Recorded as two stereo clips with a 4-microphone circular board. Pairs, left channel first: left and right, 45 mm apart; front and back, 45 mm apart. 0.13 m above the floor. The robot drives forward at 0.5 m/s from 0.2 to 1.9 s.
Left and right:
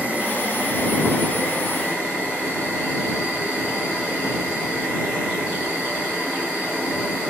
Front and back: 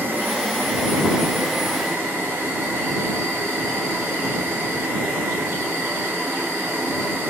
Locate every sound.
0.0 s an insect: 145° right, 1.4 m; by 7.3 s 155° right, 2 m